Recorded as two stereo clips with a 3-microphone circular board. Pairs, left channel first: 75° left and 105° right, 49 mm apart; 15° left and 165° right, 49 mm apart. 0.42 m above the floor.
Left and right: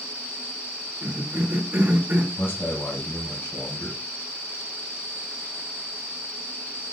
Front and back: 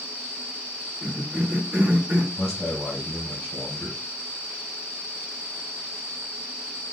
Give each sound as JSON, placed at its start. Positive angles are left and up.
{"t": 1.0, "sound": "a cough", "azimuth_deg": -110, "distance_m": 1.2}
{"t": 2.4, "sound": "a man speaking", "azimuth_deg": 80, "distance_m": 1.9}